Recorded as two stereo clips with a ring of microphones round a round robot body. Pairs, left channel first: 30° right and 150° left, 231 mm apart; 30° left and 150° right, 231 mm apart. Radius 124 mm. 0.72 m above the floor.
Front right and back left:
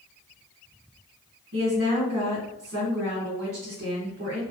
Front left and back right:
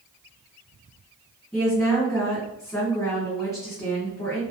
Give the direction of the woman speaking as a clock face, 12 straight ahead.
8 o'clock.